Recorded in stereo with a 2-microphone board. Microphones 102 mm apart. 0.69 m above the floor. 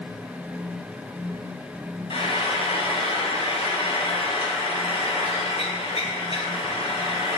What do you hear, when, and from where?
2.1 s frying: 70° left (ahead or behind), 4.5 m